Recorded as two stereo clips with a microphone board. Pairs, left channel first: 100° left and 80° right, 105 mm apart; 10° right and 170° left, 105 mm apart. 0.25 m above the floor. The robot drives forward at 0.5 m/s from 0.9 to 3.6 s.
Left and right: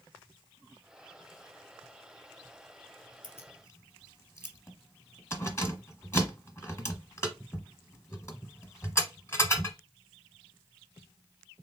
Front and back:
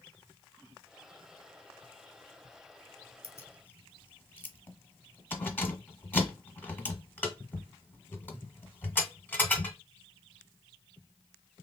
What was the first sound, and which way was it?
Keys jangling, 40° left.